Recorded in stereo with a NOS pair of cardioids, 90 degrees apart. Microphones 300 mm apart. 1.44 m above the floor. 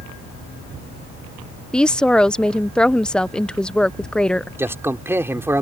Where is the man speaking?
10° right.